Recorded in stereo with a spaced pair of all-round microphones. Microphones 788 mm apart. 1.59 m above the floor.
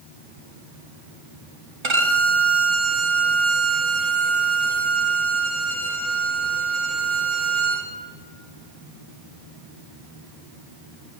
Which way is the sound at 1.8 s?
35° right (ahead or behind).